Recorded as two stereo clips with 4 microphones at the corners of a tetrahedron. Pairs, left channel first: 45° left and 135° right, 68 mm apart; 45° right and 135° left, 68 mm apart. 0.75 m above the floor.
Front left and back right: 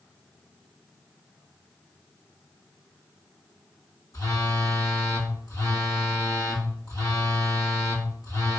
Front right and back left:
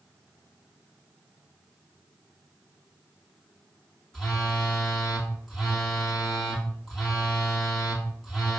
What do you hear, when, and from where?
4.1 s a phone buzzing: 40° left, 1.9 m